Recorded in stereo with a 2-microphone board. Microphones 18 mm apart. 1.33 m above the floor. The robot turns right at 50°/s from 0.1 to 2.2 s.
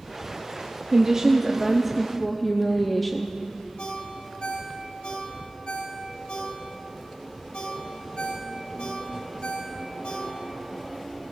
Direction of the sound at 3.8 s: 60° left (ahead or behind).